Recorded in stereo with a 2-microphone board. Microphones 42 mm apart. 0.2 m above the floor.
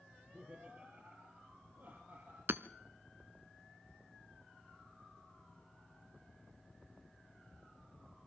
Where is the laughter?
20° right (ahead or behind), 3.5 m; by 2.4 s 50° right (ahead or behind), 5.5 m.